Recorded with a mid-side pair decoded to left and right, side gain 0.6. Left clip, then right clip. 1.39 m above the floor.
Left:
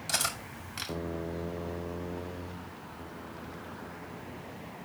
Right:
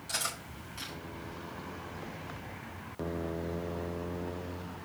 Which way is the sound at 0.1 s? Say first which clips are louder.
Left 4 dB; 45° left.